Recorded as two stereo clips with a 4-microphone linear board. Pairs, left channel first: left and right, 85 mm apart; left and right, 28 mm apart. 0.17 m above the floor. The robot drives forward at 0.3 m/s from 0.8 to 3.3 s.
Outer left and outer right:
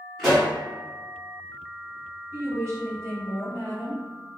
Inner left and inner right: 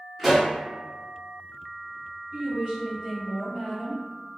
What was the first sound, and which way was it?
A pop, 5° right (ahead or behind).